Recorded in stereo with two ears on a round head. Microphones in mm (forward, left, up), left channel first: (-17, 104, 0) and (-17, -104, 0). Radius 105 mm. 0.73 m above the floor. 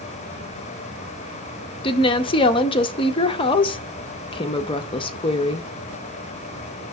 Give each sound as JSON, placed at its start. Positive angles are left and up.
{"t": 1.8, "sound": "a woman speaking", "side_deg": 20, "distance_m": 0.5}